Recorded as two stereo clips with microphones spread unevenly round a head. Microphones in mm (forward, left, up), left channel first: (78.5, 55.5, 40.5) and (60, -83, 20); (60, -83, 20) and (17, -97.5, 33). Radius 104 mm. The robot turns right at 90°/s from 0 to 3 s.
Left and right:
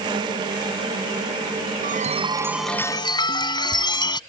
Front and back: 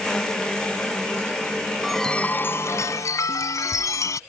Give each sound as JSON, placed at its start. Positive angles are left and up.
{"t": 1.8, "sound": "a chime", "azimuth_deg": -80}